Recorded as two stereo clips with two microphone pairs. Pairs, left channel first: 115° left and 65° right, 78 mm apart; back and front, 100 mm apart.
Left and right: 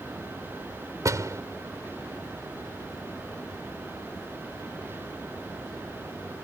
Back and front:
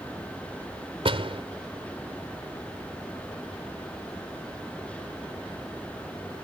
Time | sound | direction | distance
1.1 | a door slam | 20° right | ?